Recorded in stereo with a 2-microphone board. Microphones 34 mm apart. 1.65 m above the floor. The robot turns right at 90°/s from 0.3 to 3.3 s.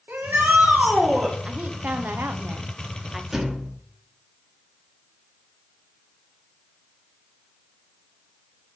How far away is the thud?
About 1.4 m.